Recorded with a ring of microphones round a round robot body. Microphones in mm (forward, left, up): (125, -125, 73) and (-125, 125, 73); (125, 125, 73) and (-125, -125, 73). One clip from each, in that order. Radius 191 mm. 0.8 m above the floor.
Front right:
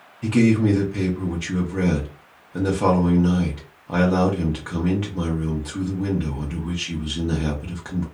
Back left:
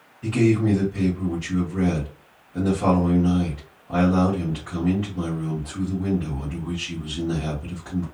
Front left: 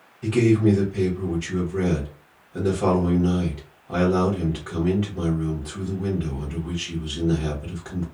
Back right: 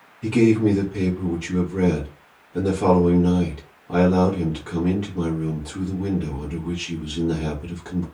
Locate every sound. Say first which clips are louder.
0.2 s a man speaking: front right 1 dB, back right 1 dB; 50° right, 0.9 m